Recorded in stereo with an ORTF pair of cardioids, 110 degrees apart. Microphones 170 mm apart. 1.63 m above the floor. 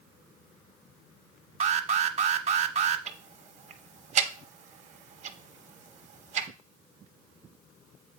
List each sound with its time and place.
1.6 s an alarm: 40° right, 1.1 m
3.1 s ticking: 45° right, 1.1 m